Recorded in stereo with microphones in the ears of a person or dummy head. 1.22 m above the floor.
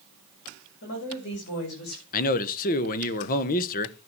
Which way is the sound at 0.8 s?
60° left (ahead or behind).